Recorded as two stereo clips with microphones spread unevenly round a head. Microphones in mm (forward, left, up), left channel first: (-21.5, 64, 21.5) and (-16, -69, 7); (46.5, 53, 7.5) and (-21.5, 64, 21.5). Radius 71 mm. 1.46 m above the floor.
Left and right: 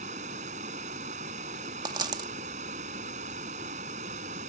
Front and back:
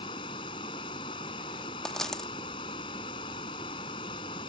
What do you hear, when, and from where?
0.0 s running water: 40° right
1.9 s a dropped coin: 115° right